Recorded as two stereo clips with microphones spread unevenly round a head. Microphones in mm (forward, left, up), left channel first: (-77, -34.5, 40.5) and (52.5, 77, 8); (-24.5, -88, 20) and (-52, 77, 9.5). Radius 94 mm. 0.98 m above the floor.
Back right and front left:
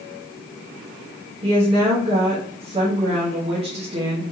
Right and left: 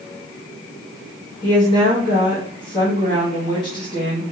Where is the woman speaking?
10° right, 1.3 m.